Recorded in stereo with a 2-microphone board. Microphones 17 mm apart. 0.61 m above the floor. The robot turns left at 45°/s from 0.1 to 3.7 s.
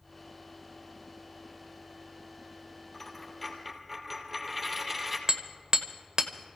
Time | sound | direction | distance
2.9 | a dropped coin | 25° left | 2.5 m
5.3 | hammering | 55° right (ahead or behind) | 1.0 m